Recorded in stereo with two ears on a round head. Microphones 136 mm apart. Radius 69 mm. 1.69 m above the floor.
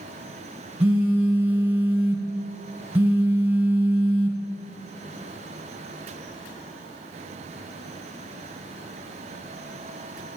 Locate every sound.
0.8 s a phone buzzing: 15° right (ahead or behind), 1.5 m